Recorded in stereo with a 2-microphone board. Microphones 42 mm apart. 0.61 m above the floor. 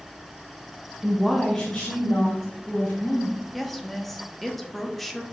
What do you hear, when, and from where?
1.0 s a woman speaking: 20° right (ahead or behind), 0.8 m; by 3.4 s 35° left (ahead or behind), 3 m
3.5 s a woman speaking: 5° left (ahead or behind), 0.5 m